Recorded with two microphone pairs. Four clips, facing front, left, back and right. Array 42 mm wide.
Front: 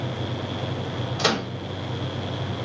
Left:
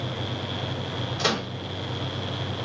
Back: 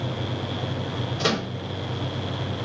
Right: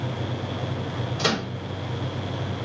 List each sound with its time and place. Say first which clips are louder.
1.2 s a microwave: right 1 dB, front 2 dB; straight ahead, 1.5 m